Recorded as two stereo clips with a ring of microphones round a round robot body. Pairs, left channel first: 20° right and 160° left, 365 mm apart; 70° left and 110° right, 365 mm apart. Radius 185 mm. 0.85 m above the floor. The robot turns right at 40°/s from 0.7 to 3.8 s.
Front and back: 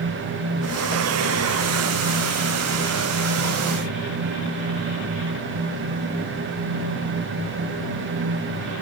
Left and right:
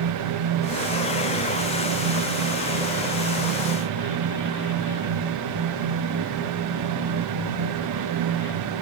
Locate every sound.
Only background noise.